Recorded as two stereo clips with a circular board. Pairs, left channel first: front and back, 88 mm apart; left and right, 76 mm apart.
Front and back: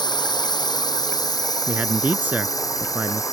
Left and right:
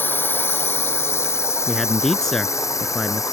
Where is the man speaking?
165° left.